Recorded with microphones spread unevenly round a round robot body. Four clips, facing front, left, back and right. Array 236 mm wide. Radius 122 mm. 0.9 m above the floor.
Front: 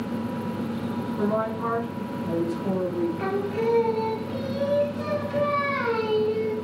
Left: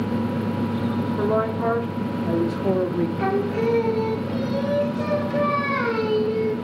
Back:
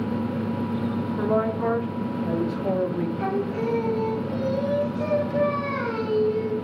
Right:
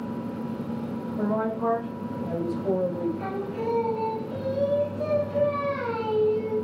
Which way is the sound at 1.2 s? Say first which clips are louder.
Left 2 dB, back 2 dB; 110° left.